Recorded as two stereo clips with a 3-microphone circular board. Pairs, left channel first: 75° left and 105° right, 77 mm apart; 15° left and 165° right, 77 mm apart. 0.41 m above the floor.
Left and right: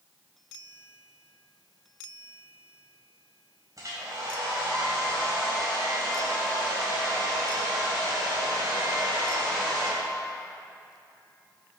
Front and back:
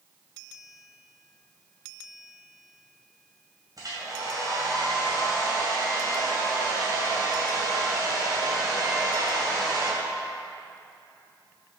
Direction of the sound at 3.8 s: 140° right.